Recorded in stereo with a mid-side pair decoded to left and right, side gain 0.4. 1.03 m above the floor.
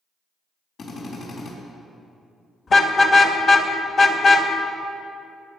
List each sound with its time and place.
0.8 s a drill: 65° left, 4 m
2.7 s a car horn: 55° left, 2 m